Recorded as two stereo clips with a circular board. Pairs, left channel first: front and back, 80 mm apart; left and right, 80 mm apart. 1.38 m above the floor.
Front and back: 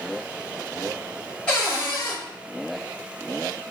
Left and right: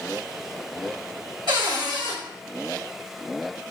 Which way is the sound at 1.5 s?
75° right.